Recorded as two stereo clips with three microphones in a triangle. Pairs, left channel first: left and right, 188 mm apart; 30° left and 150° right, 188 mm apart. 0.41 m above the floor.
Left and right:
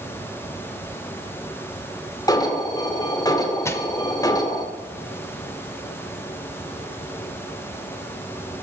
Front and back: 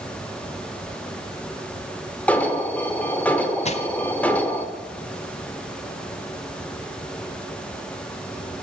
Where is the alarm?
95° left, 1.9 m.